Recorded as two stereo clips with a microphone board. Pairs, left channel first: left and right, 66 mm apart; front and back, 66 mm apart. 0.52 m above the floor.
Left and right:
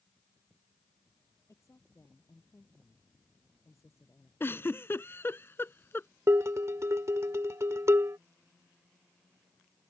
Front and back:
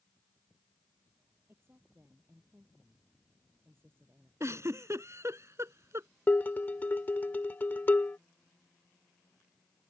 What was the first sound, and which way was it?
A woman speaking, 130° left.